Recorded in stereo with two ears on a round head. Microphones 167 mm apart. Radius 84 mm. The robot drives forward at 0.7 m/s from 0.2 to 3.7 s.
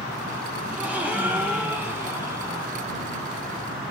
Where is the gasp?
10° right (ahead or behind), 2.5 m; by 2.7 s 20° right (ahead or behind), 1.0 m.